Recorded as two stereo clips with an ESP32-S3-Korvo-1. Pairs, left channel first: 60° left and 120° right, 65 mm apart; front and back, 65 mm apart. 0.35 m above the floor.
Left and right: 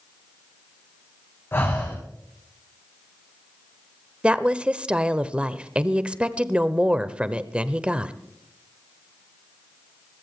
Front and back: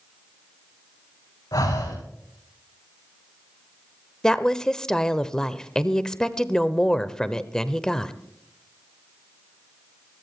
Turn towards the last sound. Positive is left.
turn(degrees=-70)